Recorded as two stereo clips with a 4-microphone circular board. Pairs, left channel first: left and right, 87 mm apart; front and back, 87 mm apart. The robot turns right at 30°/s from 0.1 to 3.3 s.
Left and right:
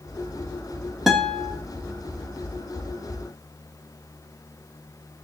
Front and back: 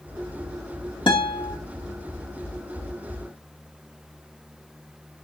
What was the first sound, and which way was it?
A guitar, straight ahead.